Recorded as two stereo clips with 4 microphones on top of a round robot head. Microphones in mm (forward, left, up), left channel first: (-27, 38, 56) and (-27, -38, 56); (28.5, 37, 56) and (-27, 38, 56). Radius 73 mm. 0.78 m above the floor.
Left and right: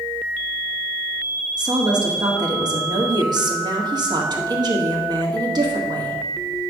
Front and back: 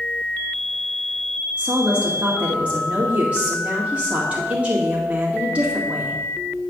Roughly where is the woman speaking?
Behind right.